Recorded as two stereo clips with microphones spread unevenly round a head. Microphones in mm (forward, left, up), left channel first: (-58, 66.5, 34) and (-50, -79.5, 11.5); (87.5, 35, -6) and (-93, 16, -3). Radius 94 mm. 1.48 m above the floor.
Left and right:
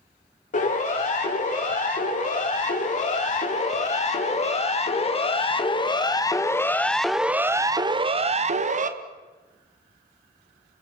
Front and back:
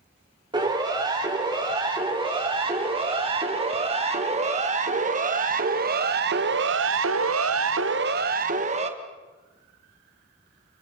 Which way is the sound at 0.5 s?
120° left.